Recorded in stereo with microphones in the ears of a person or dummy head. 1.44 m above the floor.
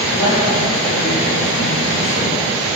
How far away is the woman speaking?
About 2 m.